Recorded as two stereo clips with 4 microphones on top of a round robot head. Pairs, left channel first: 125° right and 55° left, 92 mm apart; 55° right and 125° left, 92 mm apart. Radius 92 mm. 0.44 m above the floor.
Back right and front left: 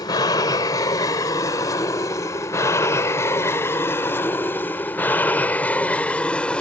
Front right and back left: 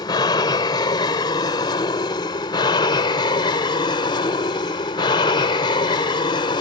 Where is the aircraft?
85° right; by 6.6 s 50° right.